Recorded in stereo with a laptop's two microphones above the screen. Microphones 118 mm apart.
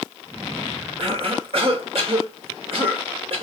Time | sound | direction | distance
1.0 | a cough | 55° right (ahead or behind) | 2.5 m